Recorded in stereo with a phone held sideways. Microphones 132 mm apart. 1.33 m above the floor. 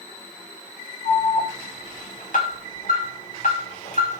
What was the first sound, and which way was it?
An alarm, 80° left.